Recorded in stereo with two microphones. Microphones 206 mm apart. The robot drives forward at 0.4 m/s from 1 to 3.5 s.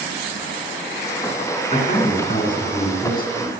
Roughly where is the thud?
I don't hear a thud.